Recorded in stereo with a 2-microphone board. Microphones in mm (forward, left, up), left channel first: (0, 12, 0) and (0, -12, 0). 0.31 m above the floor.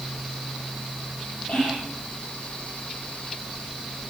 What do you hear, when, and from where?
1.5 s whispering: 45° left (ahead or behind), 7.5 m